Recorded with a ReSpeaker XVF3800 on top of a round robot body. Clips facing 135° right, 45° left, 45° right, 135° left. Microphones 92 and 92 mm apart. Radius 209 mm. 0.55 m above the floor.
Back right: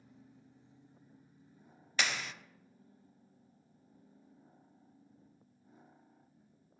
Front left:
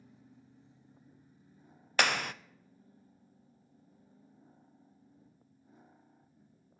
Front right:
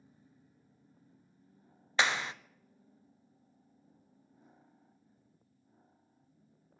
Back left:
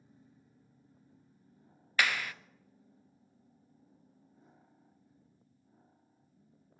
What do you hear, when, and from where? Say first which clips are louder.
2.0 s a clap: front left 6 dB, front right 1 dB; 20° left, 0.7 m